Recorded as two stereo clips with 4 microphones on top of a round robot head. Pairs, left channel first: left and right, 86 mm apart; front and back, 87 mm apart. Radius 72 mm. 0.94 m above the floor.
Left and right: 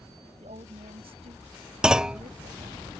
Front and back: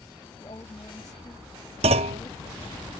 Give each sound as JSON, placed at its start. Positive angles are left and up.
{"t": 0.4, "sound": "a woman speaking", "azimuth_deg": -60}
{"t": 1.8, "sound": "a clunk", "azimuth_deg": -170}